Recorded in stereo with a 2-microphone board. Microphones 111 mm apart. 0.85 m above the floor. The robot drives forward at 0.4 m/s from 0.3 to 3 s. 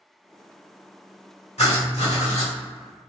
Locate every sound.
1.6 s writing: 70° left (ahead or behind), 1.3 m; by 2.5 s 80° left, 1.3 m